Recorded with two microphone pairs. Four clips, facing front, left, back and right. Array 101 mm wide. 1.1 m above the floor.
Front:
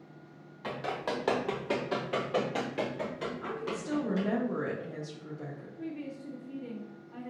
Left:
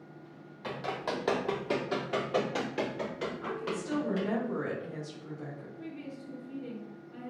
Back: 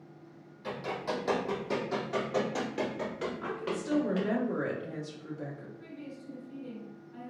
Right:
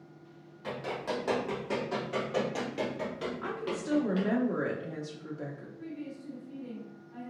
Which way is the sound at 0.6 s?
30° left.